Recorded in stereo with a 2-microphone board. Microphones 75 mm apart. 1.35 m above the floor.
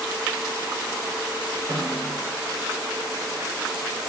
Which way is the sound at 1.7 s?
75° left (ahead or behind).